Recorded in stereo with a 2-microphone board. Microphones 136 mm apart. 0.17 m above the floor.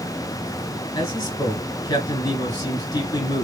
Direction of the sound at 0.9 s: 25° left (ahead or behind).